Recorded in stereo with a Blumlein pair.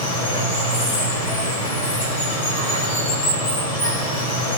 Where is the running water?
60° left, 3.5 m.